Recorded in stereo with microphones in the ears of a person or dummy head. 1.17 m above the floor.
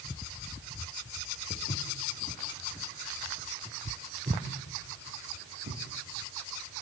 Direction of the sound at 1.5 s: 35° left (ahead or behind).